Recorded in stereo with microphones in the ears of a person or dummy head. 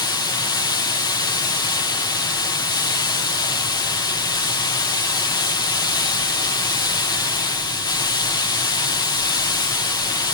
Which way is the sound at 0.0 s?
20° left (ahead or behind).